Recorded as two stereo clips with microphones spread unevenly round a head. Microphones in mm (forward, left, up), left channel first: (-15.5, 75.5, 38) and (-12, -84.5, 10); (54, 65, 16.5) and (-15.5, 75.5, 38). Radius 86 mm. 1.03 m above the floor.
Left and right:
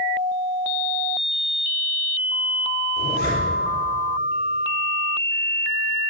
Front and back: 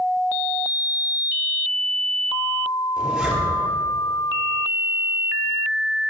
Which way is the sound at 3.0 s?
90° left.